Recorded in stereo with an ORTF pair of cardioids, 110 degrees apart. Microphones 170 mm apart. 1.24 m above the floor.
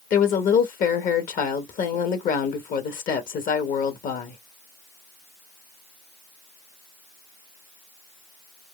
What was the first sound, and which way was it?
A woman speaking, 55° left.